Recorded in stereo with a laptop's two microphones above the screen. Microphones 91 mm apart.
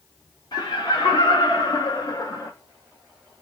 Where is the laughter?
55° left (ahead or behind), 1.3 m; by 2.5 s 35° left (ahead or behind), 0.5 m.